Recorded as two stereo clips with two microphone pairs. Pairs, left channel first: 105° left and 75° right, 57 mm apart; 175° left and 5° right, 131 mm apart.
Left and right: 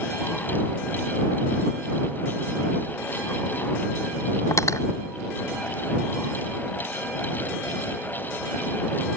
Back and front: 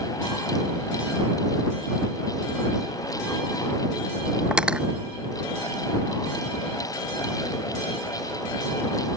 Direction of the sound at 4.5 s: 75° left.